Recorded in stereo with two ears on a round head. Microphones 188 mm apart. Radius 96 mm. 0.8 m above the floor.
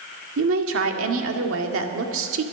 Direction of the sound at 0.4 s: 75° right (ahead or behind).